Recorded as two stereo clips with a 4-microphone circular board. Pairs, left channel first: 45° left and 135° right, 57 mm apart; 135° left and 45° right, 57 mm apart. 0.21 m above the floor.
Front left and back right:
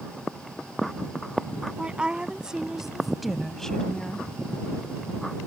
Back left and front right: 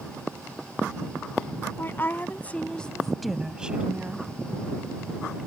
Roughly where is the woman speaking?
Behind.